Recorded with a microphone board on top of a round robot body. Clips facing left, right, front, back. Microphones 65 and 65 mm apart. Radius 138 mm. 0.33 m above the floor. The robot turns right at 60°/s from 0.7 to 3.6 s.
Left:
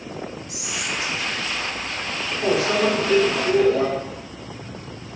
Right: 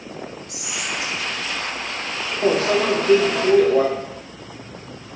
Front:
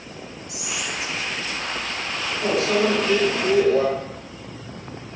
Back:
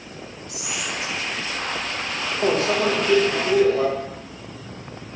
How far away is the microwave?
About 1.2 m.